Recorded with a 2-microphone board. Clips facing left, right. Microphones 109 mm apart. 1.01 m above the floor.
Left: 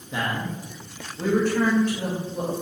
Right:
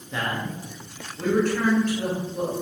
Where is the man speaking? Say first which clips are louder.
Left 1 dB; 10° left (ahead or behind), 1.0 m.